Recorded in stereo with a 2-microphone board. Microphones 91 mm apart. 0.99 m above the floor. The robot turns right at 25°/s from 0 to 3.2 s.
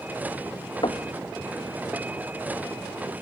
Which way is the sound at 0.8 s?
70° left (ahead or behind).